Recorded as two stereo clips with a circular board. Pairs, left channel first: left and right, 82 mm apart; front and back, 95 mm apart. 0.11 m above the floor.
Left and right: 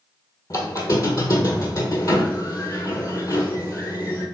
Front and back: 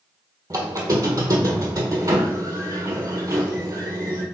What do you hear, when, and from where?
0.5 s a squeak: 130° left, 1.0 m